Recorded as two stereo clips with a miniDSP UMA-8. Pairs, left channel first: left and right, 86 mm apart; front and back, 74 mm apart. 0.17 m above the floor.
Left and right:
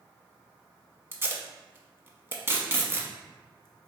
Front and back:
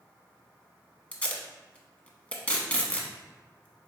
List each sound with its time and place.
1.1 s tape being pulled: 55° right, 0.6 m